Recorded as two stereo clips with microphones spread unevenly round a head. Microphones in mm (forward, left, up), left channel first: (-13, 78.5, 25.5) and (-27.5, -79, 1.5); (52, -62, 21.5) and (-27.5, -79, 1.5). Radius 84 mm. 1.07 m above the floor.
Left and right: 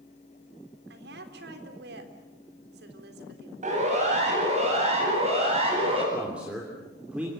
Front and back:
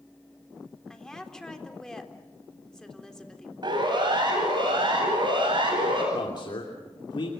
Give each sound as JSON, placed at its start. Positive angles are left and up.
{"t": 0.9, "sound": "a woman speaking", "azimuth_deg": -70, "distance_m": 3.5}
{"t": 3.6, "sound": "a siren", "azimuth_deg": -140, "distance_m": 9.5}
{"t": 6.1, "sound": "a man speaking", "azimuth_deg": -10, "distance_m": 3.0}